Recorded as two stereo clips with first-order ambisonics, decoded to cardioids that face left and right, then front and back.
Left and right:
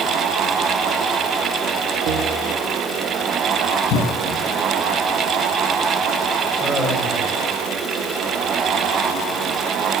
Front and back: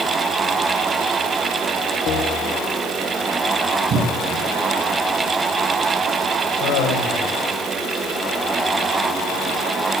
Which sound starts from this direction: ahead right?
A bell, at 2.1 s.